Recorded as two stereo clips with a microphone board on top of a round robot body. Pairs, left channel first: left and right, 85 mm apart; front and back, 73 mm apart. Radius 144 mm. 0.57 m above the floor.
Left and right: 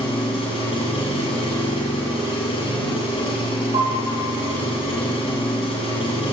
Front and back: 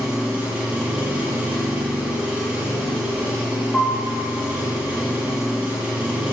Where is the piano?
95° right, 3 m.